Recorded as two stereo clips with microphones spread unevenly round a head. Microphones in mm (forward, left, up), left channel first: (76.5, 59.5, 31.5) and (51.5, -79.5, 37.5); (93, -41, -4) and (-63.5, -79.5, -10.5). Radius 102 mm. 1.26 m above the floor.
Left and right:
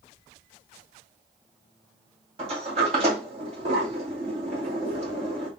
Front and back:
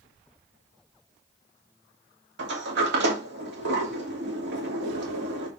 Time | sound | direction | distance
2.4 | a sliding door | 160° right | 2.5 m